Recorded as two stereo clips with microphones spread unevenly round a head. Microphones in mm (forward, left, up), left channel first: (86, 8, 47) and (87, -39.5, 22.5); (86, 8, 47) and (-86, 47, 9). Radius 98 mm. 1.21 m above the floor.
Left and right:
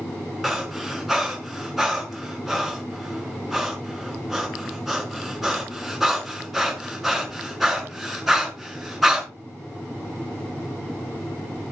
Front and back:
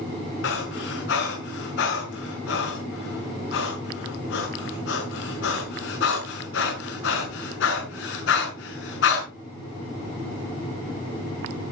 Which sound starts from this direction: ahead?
Breathing, at 0.4 s.